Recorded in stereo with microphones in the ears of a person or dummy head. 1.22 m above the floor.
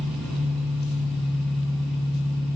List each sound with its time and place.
0.0 s an engine running: centre (ahead or behind), 2.5 m